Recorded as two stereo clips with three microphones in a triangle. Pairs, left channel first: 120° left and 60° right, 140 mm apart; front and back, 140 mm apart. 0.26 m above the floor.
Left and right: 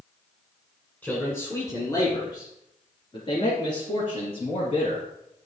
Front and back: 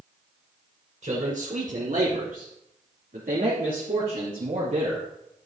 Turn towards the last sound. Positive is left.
turn(degrees=155)